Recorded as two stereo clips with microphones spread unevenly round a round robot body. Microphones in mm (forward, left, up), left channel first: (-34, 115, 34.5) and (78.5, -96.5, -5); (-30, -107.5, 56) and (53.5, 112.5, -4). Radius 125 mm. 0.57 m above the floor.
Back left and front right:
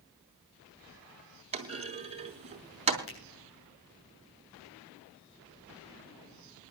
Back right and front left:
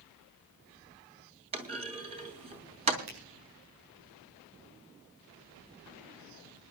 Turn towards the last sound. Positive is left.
turn(degrees=80)